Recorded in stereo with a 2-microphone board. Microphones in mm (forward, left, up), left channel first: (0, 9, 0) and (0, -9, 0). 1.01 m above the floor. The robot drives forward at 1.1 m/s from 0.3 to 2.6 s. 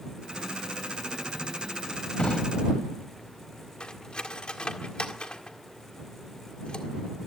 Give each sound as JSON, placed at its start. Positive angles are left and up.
{"t": 2.2, "sound": "a drawer", "side_deg": 85, "distance_m": 3.0}
{"t": 3.8, "sound": "cutlery clinking", "side_deg": 60, "distance_m": 1.7}